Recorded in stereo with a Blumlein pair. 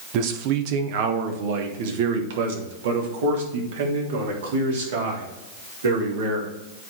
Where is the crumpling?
No crumpling in this recording.